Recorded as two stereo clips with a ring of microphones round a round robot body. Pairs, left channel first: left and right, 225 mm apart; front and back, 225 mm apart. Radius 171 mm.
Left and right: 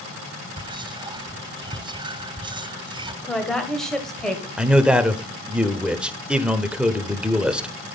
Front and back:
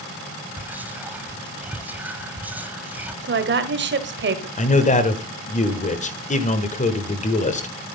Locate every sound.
0.6 s whispering: 110° right, 0.9 m
3.2 s a woman speaking: straight behind, 1.5 m
4.6 s a man speaking: 10° right, 1.5 m